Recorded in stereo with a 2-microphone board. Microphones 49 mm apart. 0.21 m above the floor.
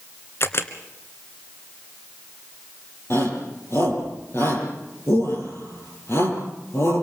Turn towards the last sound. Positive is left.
turn(degrees=55)  # may be behind; listen again after turning